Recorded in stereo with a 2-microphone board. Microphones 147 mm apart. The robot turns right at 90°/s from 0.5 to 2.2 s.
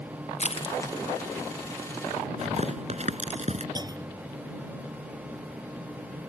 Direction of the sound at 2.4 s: 50° right (ahead or behind).